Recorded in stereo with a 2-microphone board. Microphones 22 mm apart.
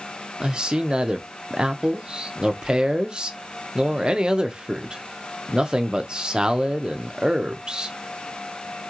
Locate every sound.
0.4 s a man speaking: 35° right (ahead or behind), 0.6 m